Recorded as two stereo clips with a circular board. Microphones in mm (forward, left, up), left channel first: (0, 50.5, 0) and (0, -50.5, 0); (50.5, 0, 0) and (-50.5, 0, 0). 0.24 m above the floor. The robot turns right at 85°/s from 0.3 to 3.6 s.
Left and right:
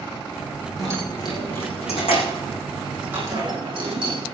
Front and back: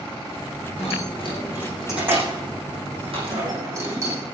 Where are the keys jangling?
Straight ahead, 8.5 m; by 4.2 s 120° right, 8.5 m.